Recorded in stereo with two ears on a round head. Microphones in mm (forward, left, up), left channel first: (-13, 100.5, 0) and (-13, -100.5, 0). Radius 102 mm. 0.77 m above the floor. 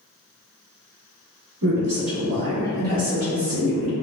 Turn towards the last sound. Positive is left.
turn(degrees=-35)  # may be behind; listen again after turning